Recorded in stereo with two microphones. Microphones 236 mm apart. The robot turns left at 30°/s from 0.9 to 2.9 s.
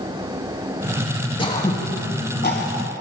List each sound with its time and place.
1.4 s throat clearing: 20° left (ahead or behind), 1.5 m; by 2.8 s 50° left (ahead or behind), 1.5 m